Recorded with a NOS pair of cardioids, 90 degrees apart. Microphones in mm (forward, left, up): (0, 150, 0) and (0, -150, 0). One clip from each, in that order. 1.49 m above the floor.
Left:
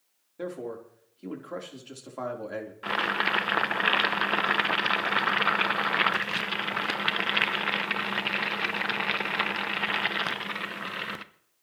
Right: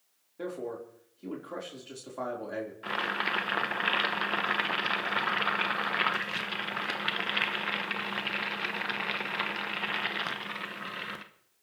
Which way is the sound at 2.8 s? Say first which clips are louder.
Left 5 dB; 25° left.